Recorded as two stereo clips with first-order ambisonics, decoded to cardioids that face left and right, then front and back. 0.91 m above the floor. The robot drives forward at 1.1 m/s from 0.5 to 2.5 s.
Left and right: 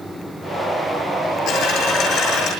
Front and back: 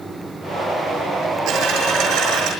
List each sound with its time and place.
1.5 s a dropped coin: 135° left, 7 m; by 2.5 s 140° left, 8 m